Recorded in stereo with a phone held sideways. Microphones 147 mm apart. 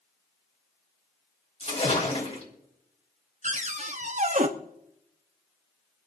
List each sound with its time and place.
1.6 s a splash: 45° left (ahead or behind), 3 m
3.4 s a cupboard door: 55° right (ahead or behind), 1.0 m